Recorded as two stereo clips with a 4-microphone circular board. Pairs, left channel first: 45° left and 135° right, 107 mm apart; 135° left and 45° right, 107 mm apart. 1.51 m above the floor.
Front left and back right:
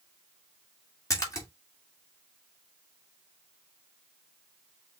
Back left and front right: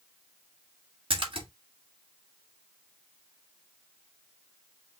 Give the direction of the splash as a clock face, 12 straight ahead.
12 o'clock.